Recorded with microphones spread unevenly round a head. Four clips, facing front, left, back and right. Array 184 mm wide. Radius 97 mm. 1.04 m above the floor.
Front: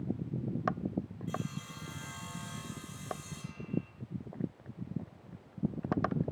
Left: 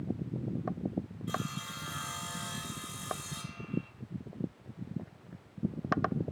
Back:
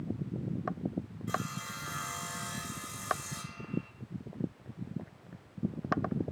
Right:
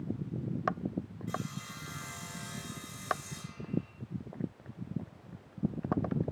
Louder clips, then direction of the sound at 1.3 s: Left 2 dB, back 3 dB; 150° left.